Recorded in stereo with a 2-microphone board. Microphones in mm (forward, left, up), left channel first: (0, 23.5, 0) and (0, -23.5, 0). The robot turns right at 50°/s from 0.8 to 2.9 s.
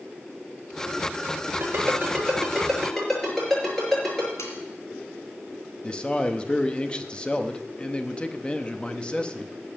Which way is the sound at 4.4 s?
80° left.